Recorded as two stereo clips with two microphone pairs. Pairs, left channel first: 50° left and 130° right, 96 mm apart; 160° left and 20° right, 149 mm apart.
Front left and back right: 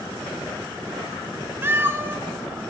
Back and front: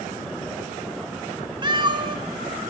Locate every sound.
1.6 s a cat meowing: 70° right, 0.6 m